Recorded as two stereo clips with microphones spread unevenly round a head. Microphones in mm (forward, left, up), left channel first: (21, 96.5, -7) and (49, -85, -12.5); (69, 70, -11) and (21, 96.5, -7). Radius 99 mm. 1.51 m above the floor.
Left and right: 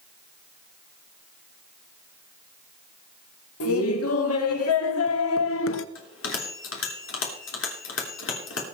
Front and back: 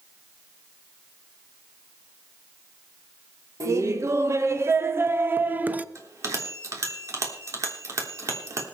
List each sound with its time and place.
3.6 s laughter: 125° left, 2 m; by 5.8 s 85° left, 1.2 m
6.0 s a bell: 125° left, 3.5 m